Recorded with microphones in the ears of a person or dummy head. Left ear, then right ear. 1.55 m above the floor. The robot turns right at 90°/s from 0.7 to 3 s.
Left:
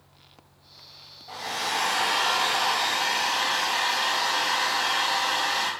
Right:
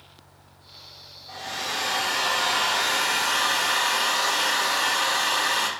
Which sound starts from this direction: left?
A hair dryer, at 1.3 s.